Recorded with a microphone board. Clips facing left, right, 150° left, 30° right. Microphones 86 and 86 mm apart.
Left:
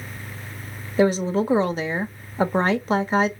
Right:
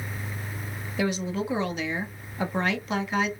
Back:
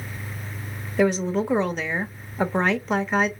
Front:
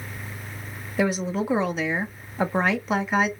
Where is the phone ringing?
No phone ringing in this recording.